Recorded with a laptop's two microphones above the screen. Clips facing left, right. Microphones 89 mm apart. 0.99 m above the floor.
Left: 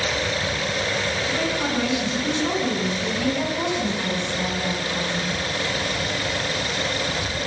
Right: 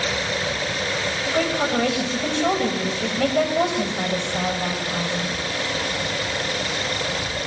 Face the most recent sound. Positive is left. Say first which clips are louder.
# right 6 dB
turn(degrees=-60)  # may be behind; listen again after turning